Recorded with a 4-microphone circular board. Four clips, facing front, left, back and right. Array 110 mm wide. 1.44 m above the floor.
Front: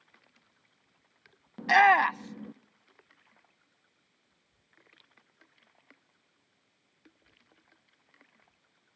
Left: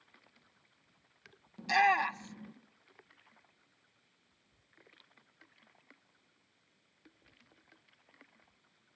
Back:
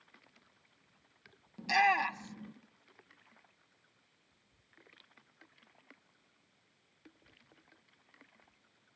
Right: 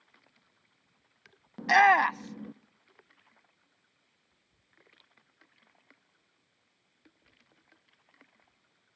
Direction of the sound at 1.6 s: 50° right.